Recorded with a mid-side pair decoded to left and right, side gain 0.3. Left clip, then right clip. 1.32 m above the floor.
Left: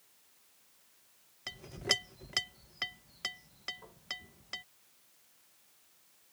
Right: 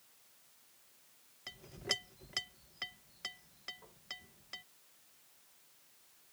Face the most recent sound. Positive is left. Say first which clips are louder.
# left 6 dB
turn(degrees=60)